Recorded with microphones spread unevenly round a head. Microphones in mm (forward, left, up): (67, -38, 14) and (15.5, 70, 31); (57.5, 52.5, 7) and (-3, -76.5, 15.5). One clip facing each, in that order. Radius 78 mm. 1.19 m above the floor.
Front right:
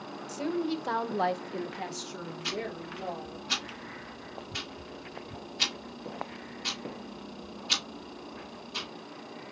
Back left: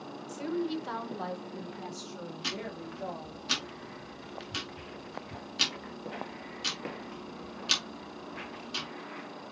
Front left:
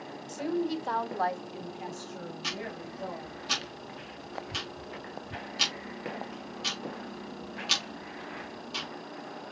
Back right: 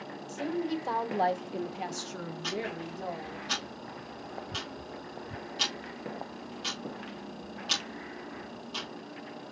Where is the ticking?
145° left, 1.8 m.